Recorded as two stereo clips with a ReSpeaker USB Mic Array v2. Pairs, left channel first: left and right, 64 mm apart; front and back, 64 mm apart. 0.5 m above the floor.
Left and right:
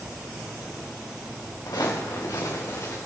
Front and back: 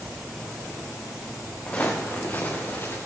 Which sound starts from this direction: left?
Footsteps, at 1.7 s.